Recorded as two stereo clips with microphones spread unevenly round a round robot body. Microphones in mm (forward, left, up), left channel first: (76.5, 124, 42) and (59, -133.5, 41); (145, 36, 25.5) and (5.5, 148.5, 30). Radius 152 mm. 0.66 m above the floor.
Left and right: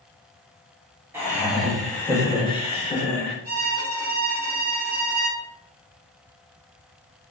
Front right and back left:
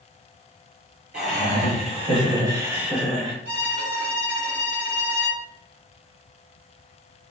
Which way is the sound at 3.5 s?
165° right.